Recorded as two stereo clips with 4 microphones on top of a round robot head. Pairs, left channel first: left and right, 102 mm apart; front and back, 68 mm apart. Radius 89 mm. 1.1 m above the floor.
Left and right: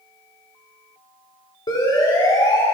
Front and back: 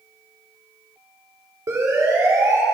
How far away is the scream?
I don't hear a scream.